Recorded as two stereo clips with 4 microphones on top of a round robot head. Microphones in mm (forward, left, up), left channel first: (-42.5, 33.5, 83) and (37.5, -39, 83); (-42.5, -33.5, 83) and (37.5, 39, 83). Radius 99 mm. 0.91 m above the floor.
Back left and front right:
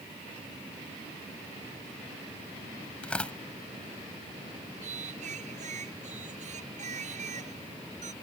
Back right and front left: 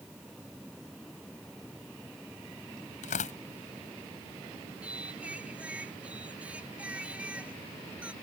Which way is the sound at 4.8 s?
35° right.